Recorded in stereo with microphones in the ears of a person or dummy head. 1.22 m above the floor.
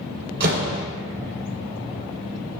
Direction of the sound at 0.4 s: 60° right (ahead or behind).